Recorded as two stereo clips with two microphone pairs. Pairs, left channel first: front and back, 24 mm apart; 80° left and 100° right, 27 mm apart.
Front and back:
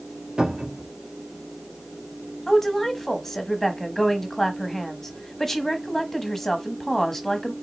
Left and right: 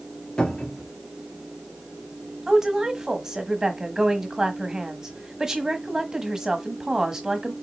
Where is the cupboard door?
130° left, 2 m.